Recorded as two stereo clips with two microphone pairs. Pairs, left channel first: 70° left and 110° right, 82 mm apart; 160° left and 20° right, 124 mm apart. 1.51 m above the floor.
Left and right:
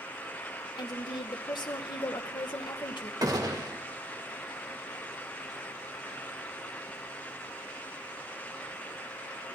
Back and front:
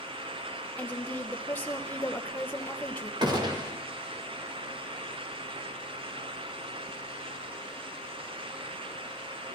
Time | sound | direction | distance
0.8 | a woman speaking | 85° left | 1.1 m
3.2 | a gunshot | 70° right | 1.3 m